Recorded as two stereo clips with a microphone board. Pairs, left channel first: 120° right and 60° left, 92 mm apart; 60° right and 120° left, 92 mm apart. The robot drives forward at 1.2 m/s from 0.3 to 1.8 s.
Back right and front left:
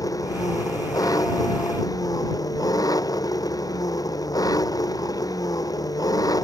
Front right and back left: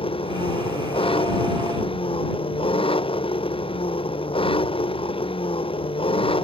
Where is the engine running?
70° right.